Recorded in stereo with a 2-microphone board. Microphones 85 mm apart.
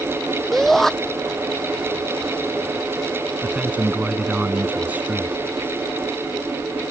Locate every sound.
0.5 s a shout: 5° left (ahead or behind)
3.4 s a man speaking: 20° right (ahead or behind)